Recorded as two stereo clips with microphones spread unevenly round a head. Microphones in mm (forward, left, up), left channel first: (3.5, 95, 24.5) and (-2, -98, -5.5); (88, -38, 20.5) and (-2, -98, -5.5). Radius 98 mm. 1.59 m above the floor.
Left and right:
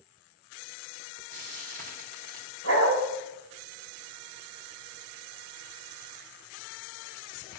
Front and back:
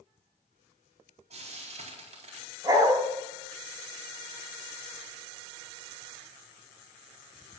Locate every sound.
1.3 s frying: 135° right, 4 m
2.6 s a dog barking: 85° right, 3.5 m